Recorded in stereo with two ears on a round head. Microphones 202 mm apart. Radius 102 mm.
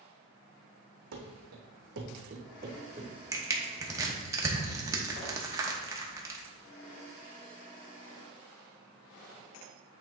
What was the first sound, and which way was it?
Running footsteps, 70° right (ahead or behind).